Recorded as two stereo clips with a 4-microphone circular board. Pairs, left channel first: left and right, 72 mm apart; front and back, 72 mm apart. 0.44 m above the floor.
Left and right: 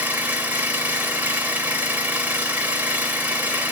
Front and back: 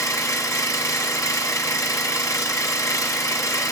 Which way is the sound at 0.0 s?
30° right.